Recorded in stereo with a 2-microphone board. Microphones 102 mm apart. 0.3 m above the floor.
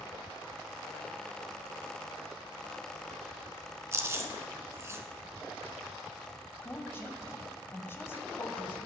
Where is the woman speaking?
25° left (ahead or behind), 1.3 m.